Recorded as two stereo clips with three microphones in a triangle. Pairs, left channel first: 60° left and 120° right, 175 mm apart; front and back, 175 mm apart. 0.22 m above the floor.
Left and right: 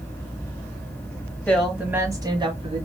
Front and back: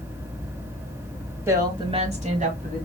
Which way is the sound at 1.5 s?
130° left.